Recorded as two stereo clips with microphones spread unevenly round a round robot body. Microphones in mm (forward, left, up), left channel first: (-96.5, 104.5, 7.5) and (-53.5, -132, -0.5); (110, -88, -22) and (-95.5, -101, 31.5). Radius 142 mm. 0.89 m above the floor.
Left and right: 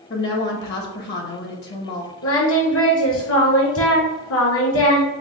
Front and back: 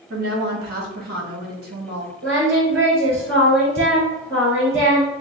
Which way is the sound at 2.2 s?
110° left.